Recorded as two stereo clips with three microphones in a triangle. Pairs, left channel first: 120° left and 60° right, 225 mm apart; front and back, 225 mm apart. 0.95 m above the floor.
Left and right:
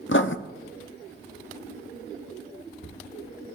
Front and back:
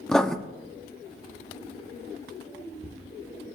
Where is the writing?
85° left, 0.6 m.